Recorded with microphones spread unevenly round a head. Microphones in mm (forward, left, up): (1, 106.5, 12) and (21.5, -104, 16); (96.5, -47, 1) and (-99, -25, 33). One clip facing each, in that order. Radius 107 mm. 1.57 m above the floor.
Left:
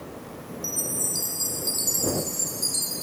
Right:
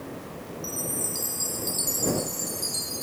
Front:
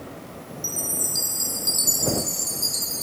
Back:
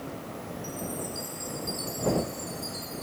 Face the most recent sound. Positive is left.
turn(degrees=15)